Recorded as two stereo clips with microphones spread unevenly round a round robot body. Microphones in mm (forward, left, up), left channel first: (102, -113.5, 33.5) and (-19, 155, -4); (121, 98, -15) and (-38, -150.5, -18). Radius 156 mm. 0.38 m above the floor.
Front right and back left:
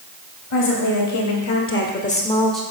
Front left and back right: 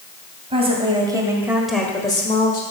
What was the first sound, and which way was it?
A woman speaking, 55° right.